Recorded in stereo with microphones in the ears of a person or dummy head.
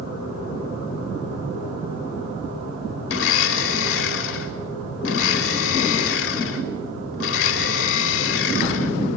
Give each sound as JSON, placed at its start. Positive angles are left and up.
{"t": 3.1, "sound": "a blender", "side_deg": 80, "distance_m": 3.5}